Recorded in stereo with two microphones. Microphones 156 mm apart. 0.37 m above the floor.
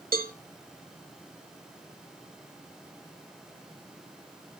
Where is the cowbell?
65° right (ahead or behind), 0.7 m.